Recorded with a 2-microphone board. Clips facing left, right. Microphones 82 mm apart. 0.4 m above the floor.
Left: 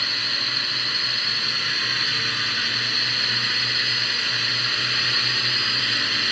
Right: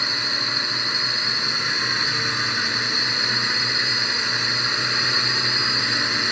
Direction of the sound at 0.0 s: 20° right (ahead or behind).